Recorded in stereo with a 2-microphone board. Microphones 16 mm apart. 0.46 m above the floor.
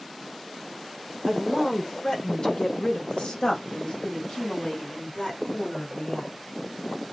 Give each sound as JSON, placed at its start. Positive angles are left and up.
{"t": 1.3, "sound": "a woman speaking", "side_deg": 15, "distance_m": 1.4}